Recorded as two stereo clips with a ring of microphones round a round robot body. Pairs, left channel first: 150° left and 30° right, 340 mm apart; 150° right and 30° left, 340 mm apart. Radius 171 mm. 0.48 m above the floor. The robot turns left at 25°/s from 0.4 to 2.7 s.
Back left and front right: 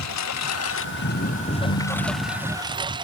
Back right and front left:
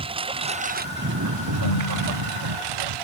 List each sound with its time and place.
0.0 s a lawn mower: 105° left; by 3.0 s 50° left
1.5 s a ringtone: 145° right; by 2.5 s 170° right